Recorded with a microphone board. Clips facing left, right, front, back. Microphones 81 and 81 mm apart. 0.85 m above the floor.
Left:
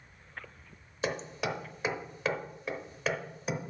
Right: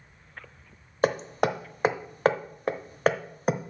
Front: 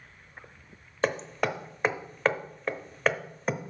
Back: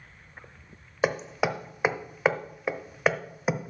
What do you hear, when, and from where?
1.0 s hammering: 100° right, 0.7 m